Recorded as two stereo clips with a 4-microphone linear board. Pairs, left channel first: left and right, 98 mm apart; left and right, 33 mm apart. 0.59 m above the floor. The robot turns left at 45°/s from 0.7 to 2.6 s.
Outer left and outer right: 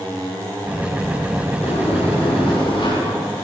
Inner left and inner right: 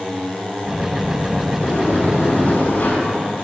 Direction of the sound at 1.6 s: 100° left.